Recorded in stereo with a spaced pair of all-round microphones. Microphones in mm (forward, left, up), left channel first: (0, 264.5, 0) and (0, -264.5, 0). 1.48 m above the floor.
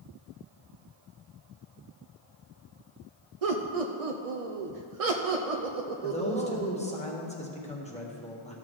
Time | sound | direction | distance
3.4 | laughter | 80° right | 0.7 m
6.0 | a man speaking | 10° left (ahead or behind) | 1.4 m